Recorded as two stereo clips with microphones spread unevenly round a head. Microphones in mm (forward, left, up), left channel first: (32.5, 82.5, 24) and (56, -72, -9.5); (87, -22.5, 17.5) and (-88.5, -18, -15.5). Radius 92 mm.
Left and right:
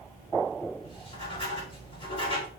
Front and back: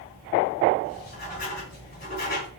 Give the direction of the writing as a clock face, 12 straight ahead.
11 o'clock.